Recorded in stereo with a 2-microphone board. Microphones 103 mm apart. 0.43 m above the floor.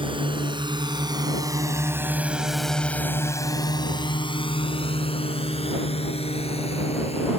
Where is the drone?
55° right (ahead or behind); by 7.4 s 80° left.